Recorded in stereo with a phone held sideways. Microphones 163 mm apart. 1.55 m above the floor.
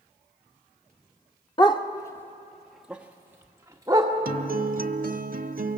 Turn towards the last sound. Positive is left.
turn(degrees=-60)  # may be behind; listen again after turning